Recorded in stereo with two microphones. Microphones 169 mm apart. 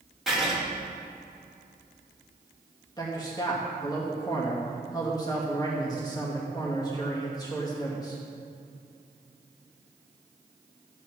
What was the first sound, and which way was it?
Writing, centre (ahead or behind).